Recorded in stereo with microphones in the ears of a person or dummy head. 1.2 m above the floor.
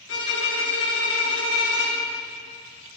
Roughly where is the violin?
Left.